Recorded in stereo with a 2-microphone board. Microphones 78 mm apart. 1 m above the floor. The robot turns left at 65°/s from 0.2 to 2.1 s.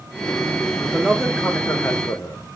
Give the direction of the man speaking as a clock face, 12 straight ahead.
5 o'clock.